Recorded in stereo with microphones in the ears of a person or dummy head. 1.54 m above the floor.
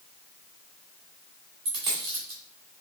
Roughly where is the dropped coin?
Right.